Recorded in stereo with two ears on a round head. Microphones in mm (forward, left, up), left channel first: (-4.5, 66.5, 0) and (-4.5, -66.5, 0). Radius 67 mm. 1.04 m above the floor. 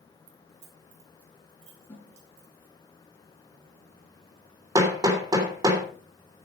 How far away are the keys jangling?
About 2.5 m.